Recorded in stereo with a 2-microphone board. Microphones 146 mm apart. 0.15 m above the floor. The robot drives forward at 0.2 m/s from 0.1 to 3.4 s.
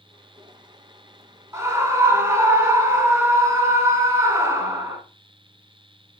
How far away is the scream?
About 1.2 m.